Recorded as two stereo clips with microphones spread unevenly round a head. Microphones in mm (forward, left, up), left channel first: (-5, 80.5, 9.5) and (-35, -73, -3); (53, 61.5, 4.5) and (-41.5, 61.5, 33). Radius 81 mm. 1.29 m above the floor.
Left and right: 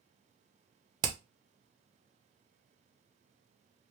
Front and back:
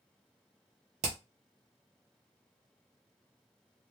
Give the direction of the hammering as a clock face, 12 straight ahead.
5 o'clock.